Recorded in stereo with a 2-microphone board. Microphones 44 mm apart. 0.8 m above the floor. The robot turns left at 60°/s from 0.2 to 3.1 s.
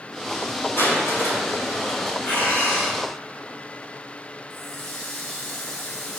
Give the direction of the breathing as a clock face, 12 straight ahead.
8 o'clock.